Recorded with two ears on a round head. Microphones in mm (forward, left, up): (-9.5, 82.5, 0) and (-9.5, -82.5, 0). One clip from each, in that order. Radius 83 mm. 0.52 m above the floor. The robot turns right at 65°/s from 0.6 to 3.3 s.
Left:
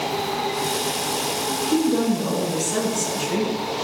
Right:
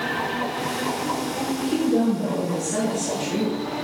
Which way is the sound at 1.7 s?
10° left.